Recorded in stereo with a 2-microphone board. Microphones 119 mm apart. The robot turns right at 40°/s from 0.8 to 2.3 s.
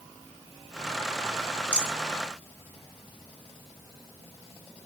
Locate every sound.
1.7 s a rattle: 85° left, 2.5 m; by 1.9 s 80° left, 2.5 m